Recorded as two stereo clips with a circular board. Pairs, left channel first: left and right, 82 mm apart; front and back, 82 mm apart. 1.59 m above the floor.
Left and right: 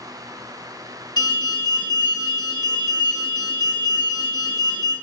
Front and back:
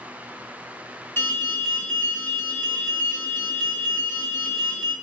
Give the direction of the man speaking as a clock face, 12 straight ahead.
I don't hear a man speaking.